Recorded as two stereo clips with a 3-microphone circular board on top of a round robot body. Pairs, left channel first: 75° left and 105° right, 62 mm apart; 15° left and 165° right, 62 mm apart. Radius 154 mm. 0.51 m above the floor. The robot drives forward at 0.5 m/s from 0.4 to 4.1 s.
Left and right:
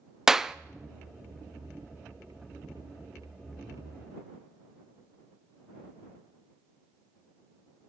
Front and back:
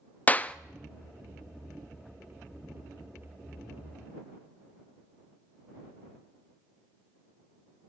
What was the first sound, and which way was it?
A clap, 30° right.